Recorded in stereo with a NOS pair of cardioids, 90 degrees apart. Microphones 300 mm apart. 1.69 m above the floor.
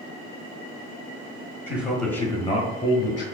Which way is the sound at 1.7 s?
10° right.